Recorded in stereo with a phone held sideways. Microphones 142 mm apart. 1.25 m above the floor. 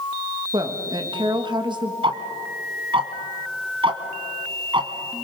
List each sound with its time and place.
0.5 s a woman speaking: 35° right (ahead or behind), 1.9 m
2.0 s ticking: 40° right (ahead or behind), 1.6 m